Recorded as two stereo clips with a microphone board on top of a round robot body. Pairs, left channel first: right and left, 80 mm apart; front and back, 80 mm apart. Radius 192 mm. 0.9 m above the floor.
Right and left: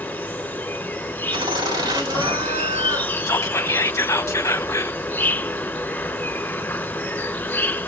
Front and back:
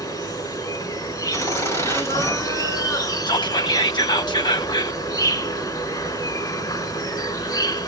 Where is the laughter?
55° left, 5.5 m.